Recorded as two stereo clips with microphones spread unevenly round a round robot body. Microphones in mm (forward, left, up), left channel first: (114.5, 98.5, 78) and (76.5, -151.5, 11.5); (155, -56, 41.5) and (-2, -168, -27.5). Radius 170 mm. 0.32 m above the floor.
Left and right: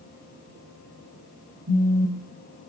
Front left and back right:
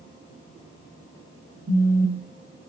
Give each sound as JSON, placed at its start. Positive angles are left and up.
{"t": 1.7, "sound": "a phone buzzing", "azimuth_deg": -120, "distance_m": 1.5}